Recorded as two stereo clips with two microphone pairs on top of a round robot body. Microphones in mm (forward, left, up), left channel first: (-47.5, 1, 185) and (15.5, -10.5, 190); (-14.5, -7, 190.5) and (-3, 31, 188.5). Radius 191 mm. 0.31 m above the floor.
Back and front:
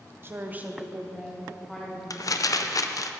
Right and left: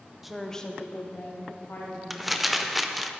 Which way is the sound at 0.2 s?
Straight ahead.